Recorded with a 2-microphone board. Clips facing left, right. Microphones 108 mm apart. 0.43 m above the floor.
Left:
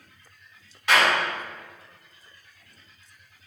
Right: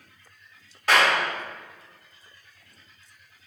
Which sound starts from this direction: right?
A clap, at 0.9 s.